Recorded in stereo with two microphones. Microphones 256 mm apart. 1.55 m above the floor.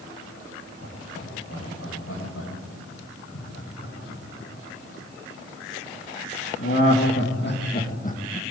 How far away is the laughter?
About 9 m.